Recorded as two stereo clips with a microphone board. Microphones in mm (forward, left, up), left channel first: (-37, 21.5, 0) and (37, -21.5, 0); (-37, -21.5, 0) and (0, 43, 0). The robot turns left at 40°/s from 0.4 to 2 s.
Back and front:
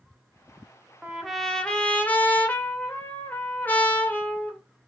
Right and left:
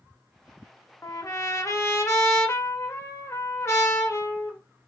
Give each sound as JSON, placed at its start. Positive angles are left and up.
{"t": 1.0, "sound": "a trumpet", "azimuth_deg": -110, "distance_m": 0.6}